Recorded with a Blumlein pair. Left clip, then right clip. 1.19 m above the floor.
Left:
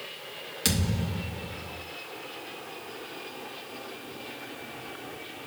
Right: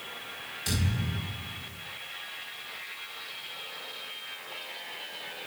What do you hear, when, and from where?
0.7 s a thud: 45° left, 1.7 m